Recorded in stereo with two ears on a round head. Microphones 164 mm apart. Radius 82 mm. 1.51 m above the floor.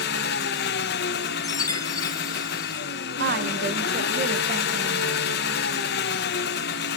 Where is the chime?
20° left (ahead or behind), 0.8 m.